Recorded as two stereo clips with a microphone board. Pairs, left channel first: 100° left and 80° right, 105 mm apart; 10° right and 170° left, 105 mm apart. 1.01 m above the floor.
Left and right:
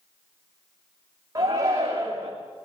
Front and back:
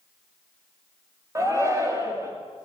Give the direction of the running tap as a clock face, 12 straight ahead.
I don't hear a running tap.